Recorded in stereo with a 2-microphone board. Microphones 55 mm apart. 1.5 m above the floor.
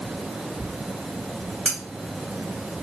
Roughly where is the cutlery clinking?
Centre.